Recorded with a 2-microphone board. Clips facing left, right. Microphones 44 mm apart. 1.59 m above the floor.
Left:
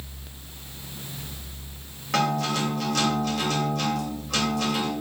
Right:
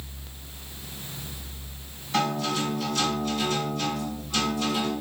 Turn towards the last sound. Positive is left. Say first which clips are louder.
# left 2 dB
turn(degrees=80)